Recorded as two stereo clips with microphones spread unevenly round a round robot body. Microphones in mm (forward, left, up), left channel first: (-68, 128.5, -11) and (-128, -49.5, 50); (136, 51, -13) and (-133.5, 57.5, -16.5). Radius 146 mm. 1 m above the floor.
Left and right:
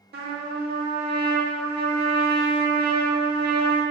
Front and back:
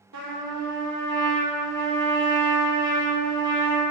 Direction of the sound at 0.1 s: 150° right.